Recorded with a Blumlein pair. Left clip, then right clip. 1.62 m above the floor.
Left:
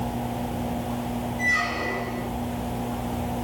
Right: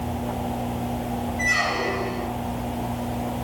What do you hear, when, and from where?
1.4 s a squeak: 20° right, 3 m